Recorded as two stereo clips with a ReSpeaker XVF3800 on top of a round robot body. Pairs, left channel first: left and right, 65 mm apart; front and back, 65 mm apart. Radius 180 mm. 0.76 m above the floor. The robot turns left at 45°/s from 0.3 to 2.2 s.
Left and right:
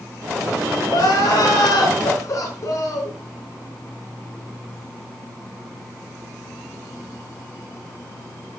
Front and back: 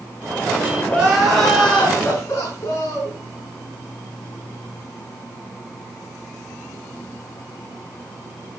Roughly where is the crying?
Left.